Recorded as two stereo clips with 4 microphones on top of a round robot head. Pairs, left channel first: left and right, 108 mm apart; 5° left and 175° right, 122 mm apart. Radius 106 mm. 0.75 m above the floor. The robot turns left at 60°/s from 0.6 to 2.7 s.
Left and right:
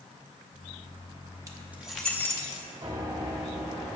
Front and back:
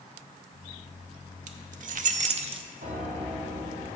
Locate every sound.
1.5 s keys jangling: 150° right, 0.6 m; by 2.6 s 140° left, 0.6 m
2.8 s a piano: 150° right, 1.8 m